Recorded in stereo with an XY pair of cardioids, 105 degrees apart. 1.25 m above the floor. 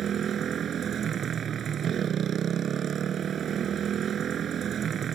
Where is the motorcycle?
55° right.